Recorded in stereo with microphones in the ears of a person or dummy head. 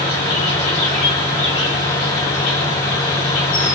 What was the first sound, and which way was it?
An insect, 40° left (ahead or behind).